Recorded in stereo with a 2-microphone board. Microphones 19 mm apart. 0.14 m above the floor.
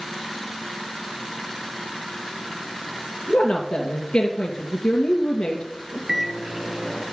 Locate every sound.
3.3 s a woman speaking: 65° left (ahead or behind), 3 m
6.1 s a microwave: 15° right (ahead or behind), 2.5 m